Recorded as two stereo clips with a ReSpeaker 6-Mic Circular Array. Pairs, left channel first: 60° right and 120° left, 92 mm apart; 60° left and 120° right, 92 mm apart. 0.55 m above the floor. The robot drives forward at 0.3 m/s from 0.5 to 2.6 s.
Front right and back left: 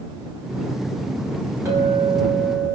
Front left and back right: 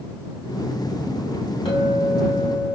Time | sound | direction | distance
1.6 | a clink | 55° left | 1.3 m